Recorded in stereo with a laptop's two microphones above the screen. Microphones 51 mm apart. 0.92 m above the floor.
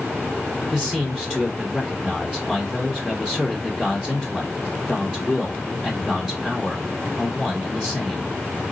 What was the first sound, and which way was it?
A man speaking, 5° left (ahead or behind).